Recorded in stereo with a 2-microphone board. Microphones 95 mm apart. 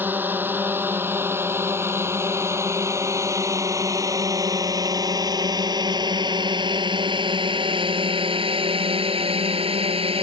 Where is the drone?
20° right (ahead or behind); by 10.2 s 80° right.